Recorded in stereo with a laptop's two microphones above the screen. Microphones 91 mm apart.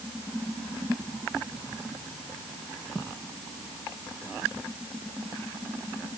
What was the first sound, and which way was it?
Only background noise.